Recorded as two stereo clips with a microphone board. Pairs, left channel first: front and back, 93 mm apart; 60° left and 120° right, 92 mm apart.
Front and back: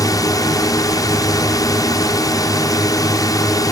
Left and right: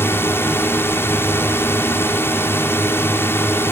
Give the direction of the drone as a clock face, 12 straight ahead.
12 o'clock.